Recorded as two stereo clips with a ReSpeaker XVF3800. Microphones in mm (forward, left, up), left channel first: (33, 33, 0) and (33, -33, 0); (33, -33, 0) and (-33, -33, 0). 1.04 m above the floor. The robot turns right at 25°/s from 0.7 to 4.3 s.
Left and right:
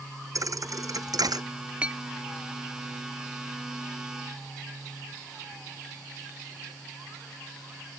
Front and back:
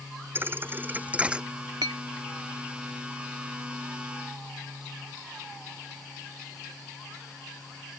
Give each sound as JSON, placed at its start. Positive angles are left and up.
{"t": 0.3, "sound": "a thud", "azimuth_deg": -125}
{"t": 1.8, "sound": "a clink", "azimuth_deg": -160}